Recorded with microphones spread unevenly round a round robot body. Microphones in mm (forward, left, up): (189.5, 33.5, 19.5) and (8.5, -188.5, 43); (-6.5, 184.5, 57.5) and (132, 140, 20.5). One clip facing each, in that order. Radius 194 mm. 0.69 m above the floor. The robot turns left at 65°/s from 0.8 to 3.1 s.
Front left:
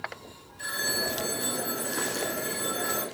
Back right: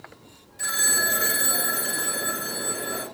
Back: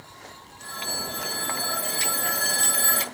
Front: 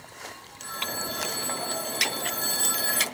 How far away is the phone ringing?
About 2.5 m.